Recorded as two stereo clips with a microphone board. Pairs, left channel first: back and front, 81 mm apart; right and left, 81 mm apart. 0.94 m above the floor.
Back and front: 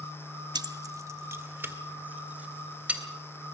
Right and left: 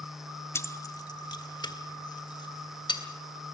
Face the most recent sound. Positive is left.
turn(degrees=-75)